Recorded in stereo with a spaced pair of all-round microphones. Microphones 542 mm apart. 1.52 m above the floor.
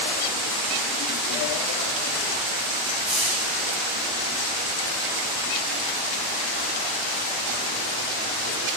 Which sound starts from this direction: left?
A hiss, at 3.0 s.